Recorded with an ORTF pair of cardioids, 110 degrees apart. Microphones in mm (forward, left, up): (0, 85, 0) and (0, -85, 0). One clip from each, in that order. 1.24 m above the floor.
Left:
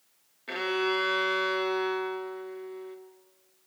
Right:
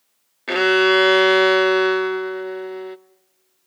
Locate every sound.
0.5 s a violin: 60° right, 0.9 m